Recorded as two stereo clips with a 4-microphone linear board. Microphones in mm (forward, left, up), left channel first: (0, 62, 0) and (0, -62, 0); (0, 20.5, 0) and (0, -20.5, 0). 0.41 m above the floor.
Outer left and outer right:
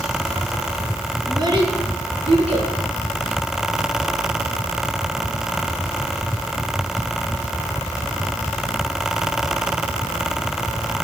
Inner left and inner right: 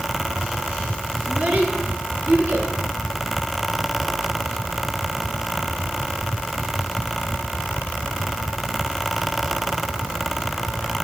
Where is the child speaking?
35° right (ahead or behind), 3 m; by 2.7 s 55° right (ahead or behind), 4 m.